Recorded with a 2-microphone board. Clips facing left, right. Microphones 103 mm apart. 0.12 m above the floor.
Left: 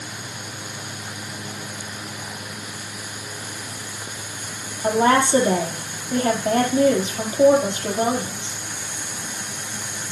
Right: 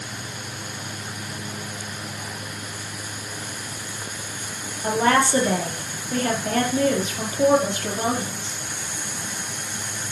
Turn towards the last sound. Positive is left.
turn(degrees=20)  # may be behind; listen again after turning